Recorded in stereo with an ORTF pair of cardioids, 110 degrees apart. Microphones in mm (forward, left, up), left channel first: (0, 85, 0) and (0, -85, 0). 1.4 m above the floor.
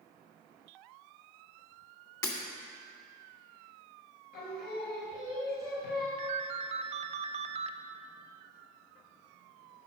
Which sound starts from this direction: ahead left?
Singing, at 4.3 s.